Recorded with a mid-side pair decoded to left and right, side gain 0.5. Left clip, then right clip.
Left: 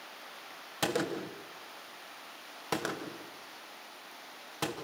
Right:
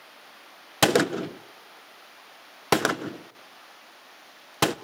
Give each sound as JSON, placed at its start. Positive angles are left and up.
{"t": 0.8, "sound": "a gunshot", "azimuth_deg": -70, "distance_m": 0.8}